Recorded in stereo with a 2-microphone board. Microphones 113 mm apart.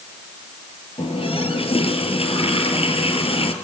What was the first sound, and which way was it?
A running tap, 60° left (ahead or behind).